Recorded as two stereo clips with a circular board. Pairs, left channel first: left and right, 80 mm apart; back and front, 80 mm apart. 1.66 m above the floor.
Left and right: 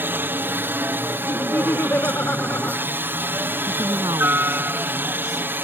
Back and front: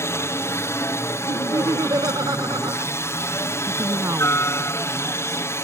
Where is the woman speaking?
50° right.